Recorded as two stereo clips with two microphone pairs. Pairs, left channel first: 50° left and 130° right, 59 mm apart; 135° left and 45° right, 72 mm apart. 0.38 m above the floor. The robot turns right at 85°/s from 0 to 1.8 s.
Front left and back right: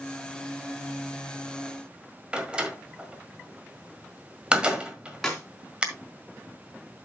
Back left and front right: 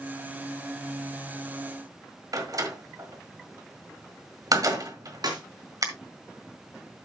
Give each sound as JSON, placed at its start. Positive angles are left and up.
{"t": 2.3, "sound": "a door slam", "azimuth_deg": -60, "distance_m": 1.6}
{"t": 5.2, "sound": "a clap", "azimuth_deg": -40, "distance_m": 3.5}